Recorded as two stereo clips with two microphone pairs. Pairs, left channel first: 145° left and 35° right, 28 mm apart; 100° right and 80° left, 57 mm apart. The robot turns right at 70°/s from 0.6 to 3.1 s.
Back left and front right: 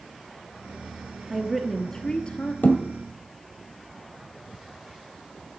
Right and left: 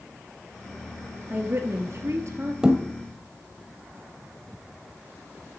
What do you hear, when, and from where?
1.3 s a woman speaking: 25° left, 2 m; by 2.5 s 115° left, 2 m
2.6 s a thud: 155° left, 1.8 m; by 2.8 s 165° left, 1.8 m